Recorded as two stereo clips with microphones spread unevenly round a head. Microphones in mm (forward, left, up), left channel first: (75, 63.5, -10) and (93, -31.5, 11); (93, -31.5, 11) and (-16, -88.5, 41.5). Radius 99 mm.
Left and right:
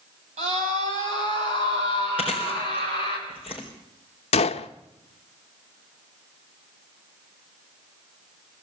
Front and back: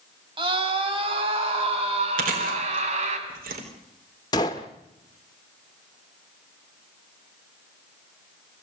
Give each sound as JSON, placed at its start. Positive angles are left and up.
{"t": 0.4, "sound": "a scream", "azimuth_deg": -105, "distance_m": 5.5}
{"t": 2.2, "sound": "chewing", "azimuth_deg": -165, "distance_m": 3.5}
{"t": 4.3, "sound": "a gunshot", "azimuth_deg": 105, "distance_m": 0.8}